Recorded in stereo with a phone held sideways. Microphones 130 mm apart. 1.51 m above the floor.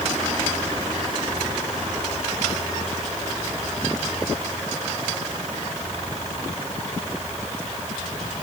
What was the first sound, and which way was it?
Only background noise.